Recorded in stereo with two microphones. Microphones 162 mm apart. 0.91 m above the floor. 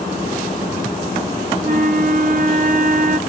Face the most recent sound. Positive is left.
turn(degrees=-50)  # may be behind; listen again after turning